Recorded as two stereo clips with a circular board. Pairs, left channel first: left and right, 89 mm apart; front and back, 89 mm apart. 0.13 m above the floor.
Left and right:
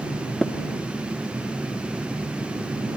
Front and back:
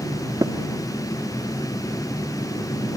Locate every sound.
0.4 s tapping: 175° left